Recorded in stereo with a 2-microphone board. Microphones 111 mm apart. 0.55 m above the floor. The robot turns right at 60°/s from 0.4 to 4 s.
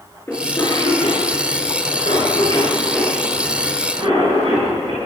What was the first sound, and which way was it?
A cough, 20° left (ahead or behind).